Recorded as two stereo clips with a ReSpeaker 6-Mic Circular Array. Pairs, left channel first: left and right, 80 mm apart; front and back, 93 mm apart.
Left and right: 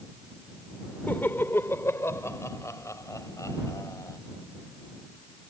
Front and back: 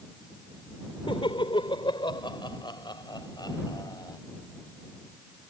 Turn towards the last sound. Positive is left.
turn(degrees=45)